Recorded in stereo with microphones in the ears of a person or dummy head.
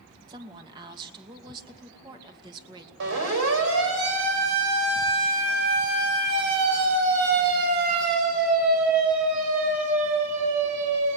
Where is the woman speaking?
25° right (ahead or behind), 2.5 m.